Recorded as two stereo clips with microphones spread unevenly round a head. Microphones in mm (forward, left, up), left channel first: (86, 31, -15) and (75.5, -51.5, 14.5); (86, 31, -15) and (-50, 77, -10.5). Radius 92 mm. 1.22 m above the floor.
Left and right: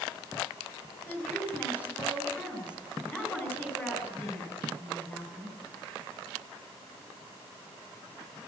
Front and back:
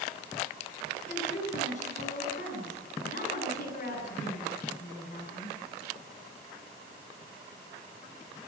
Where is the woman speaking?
15° left, 9 m.